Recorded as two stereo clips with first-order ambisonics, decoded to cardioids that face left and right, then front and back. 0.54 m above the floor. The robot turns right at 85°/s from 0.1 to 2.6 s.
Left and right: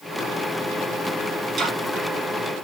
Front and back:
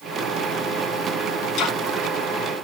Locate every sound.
1.6 s ticking: 40° right, 1.1 m; by 1.8 s 25° right, 1.1 m